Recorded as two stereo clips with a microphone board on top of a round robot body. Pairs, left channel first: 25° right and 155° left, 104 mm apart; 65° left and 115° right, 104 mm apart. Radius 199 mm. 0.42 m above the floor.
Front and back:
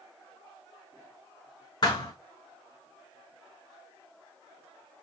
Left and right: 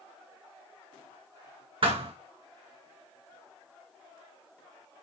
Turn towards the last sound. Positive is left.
turn(degrees=-75)